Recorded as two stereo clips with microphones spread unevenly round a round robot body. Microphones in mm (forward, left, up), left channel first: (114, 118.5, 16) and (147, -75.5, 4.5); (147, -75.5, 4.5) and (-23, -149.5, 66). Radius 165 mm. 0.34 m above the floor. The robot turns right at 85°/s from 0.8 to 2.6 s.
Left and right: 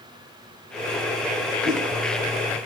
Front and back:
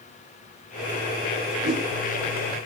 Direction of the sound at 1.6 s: 155° right.